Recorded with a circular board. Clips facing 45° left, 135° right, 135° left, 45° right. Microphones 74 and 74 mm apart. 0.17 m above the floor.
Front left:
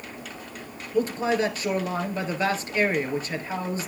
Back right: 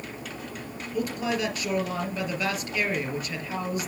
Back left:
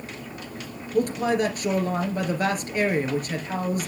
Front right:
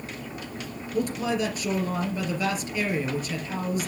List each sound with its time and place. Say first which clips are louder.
0.9 s a man speaking: front left 5 dB, back left 4 dB; 100° left, 3 m